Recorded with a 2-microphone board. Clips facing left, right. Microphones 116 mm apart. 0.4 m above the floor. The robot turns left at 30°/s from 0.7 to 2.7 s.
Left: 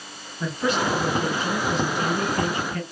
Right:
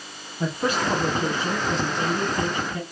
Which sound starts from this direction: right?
A woman speaking, at 0.4 s.